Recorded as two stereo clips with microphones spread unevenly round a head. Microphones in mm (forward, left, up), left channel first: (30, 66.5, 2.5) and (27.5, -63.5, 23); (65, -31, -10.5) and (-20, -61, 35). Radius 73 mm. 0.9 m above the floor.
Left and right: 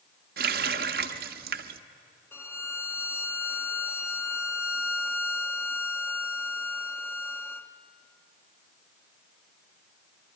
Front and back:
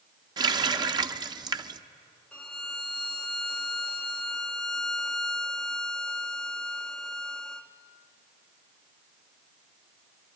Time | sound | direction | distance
0.4 | a running tap | 120° right | 0.7 m
2.3 | a violin | 40° left | 0.8 m